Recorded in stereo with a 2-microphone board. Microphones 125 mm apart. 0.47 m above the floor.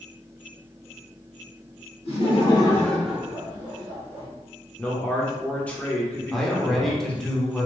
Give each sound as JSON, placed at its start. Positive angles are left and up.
{"t": 2.0, "sound": "laughter", "side_deg": 55, "distance_m": 1.2}
{"t": 4.8, "sound": "a man speaking", "side_deg": 10, "distance_m": 0.9}
{"t": 6.3, "sound": "a man speaking", "side_deg": 0, "distance_m": 0.9}